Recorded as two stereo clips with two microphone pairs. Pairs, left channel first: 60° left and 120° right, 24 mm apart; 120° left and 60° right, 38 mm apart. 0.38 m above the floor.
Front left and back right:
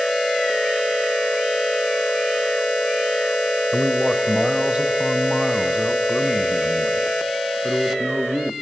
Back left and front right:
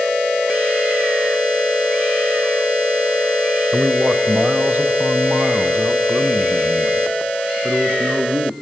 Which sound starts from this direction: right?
A man speaking, at 3.7 s.